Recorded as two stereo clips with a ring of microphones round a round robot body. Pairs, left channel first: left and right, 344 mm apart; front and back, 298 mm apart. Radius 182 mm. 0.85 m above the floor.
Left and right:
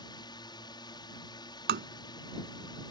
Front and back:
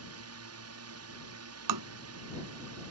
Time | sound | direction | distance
0.0 | a drone | 165° left | ?
1.7 | tapping | 150° right | ?